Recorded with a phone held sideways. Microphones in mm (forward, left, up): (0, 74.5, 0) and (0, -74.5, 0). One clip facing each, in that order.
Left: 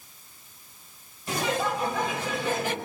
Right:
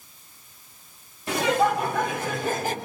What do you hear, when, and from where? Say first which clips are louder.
1.3 s laughter: right 6 dB; 75° right (ahead or behind), 3.5 m; by 2.8 s 40° right (ahead or behind), 3.5 m